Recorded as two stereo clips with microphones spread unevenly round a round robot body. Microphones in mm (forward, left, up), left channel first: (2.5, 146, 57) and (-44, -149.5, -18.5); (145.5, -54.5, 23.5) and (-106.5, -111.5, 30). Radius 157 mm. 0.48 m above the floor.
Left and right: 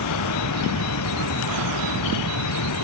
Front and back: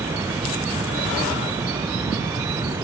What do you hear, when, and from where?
0.0 s running water: 110° left